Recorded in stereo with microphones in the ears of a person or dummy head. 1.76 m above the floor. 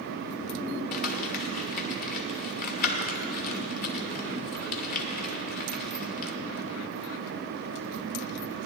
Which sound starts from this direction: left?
Crumpling, at 0.9 s.